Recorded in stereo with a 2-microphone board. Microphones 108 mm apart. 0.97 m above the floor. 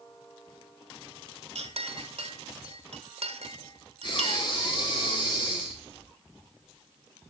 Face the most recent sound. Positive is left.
turn(degrees=50)  # may be behind; listen again after turning